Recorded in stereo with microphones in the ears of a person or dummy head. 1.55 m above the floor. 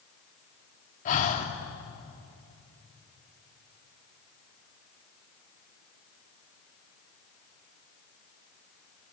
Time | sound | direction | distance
1.1 | breathing | 40° left (ahead or behind) | 2.5 m